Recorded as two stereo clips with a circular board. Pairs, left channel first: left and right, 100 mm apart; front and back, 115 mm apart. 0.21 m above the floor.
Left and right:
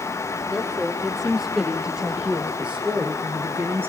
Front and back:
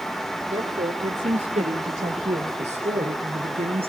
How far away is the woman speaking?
About 7 m.